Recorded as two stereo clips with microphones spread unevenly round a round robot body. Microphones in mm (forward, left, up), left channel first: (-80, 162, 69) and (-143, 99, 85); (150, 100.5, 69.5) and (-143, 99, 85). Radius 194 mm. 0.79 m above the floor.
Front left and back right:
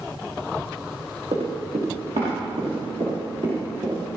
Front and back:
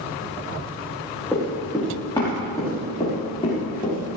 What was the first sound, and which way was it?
Running footsteps, 85° right.